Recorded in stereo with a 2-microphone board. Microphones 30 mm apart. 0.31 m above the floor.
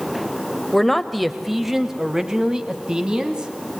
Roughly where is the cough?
I don't hear a cough.